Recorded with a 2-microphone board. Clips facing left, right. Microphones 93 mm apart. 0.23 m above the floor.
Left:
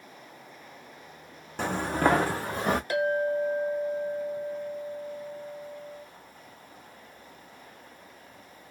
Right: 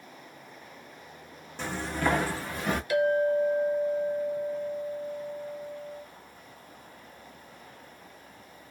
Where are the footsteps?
60° left (ahead or behind), 0.6 m; by 2.8 s 45° left (ahead or behind), 1.2 m.